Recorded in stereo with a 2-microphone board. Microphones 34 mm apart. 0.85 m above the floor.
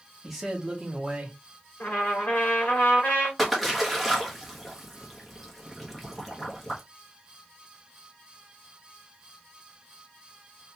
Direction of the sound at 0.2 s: Centre (ahead or behind).